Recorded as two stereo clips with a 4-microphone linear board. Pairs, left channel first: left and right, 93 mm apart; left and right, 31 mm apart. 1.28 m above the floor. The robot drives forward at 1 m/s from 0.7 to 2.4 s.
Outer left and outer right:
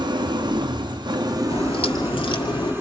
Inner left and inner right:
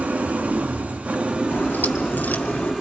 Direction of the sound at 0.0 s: 50° right (ahead or behind).